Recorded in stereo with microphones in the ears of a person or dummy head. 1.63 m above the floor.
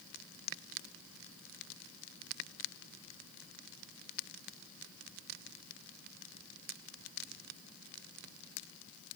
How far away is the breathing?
No breathing in this recording.